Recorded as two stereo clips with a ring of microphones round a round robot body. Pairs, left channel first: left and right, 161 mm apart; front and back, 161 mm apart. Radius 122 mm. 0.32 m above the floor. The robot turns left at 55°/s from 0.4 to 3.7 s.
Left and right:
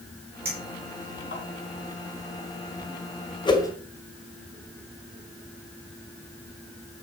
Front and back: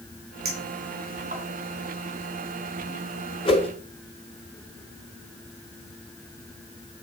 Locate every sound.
0.5 s a clink: 170° right, 2.5 m; by 1.4 s 140° left, 2.5 m
3.5 s a whoosh: 45° left, 2 m; by 3.7 s 30° left, 2 m